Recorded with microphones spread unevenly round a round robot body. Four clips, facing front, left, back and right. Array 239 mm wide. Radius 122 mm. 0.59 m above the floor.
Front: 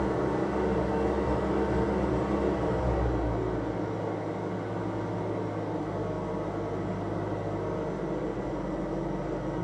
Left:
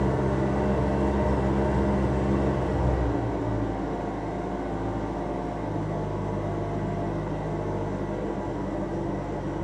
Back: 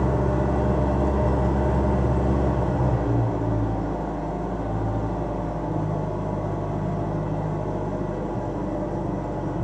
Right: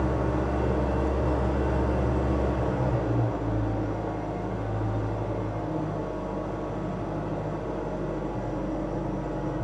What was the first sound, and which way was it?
An engine running, 175° left.